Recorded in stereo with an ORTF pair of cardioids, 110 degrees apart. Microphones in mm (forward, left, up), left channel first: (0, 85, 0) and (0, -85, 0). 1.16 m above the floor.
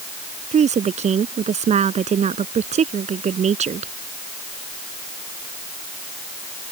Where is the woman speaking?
45° right.